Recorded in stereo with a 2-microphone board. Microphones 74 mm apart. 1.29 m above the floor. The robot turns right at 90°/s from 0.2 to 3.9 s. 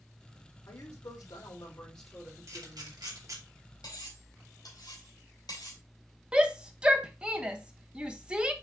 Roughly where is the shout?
Centre.